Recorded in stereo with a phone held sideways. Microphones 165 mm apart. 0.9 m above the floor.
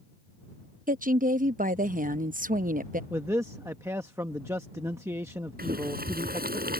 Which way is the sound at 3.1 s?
15° right (ahead or behind).